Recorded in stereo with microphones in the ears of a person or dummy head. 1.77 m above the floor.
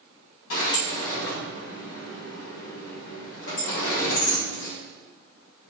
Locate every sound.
0.5 s a sliding door: 75° left (ahead or behind), 3 m